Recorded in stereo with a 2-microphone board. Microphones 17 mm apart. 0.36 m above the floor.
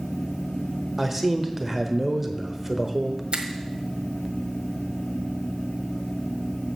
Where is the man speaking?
15° right (ahead or behind), 0.9 m.